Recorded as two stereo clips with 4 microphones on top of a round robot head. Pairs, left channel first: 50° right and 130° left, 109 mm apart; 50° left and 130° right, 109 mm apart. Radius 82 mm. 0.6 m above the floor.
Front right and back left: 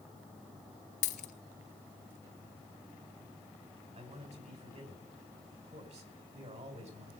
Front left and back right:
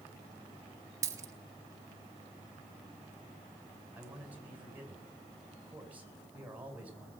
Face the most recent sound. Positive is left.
turn(degrees=155)